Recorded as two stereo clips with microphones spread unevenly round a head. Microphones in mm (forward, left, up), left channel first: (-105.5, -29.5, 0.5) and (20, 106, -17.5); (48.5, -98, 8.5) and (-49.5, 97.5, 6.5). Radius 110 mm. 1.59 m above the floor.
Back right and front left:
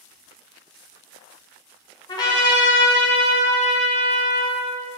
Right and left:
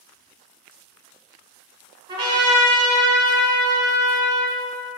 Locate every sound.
2.1 s a trumpet: straight behind, 1.9 m